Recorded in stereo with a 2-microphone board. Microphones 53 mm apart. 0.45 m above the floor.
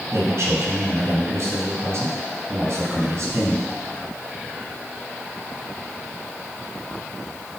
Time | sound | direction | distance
0.1 | a man speaking | 60° right (ahead or behind) | 3.5 m